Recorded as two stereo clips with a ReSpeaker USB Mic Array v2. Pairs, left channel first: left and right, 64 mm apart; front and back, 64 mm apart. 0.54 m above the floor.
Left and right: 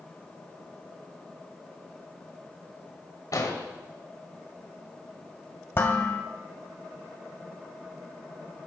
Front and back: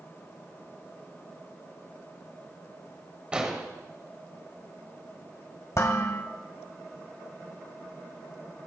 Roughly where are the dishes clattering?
Ahead left.